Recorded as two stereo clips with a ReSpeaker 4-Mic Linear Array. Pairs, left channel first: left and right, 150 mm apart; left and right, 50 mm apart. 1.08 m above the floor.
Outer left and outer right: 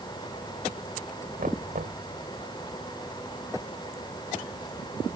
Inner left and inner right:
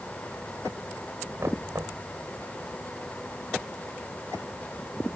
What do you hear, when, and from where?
1.4 s knocking: 70° right (ahead or behind)